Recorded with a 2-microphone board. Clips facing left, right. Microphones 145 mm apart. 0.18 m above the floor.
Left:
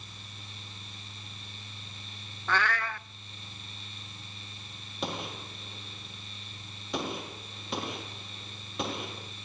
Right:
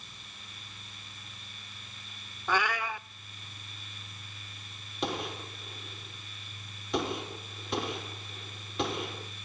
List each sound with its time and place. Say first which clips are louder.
2.5 s a cat meowing: even; 10° right (ahead or behind), 0.6 m
5.0 s a gunshot: right 2 dB; centre (ahead or behind), 5.5 m